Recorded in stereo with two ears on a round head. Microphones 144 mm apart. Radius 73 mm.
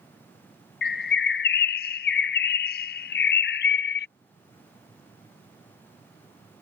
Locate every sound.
0.8 s a bird: 65° left (ahead or behind)